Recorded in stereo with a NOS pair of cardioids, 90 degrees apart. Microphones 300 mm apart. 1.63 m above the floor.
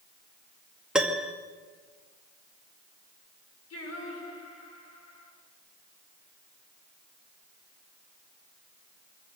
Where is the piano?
Straight ahead, 2 m.